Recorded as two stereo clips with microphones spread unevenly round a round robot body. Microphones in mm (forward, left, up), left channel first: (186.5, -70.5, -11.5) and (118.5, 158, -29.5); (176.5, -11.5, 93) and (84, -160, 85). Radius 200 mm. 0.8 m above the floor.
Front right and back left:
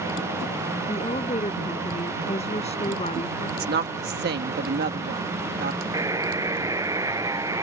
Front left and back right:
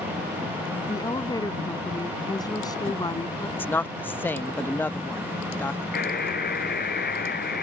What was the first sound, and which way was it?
A woman speaking, 10° right.